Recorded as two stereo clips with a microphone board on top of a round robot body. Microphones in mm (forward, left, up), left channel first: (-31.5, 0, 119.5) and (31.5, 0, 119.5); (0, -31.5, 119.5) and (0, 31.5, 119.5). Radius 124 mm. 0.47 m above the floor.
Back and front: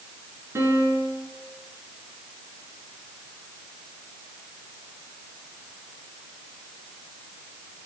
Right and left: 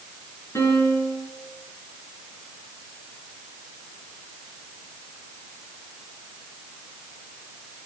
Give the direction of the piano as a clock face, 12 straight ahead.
2 o'clock.